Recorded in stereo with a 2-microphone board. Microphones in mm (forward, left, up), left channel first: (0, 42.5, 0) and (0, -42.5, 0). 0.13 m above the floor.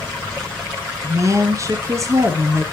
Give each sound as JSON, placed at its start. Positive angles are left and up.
{"t": 1.0, "sound": "a woman speaking", "side_deg": -40, "distance_m": 1.3}